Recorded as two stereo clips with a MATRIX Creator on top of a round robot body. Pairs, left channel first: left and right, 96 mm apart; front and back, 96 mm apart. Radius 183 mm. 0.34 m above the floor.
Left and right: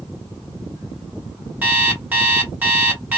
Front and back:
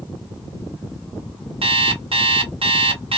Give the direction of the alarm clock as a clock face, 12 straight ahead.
5 o'clock.